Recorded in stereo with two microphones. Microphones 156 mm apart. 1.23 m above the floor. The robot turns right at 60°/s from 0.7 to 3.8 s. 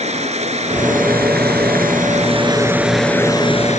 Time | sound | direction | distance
0.0 | running water | 135° right | ?